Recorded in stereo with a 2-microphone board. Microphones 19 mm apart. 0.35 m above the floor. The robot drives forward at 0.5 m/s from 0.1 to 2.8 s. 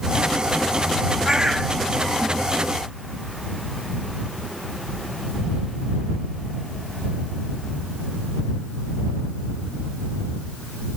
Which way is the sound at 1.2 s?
35° right (ahead or behind).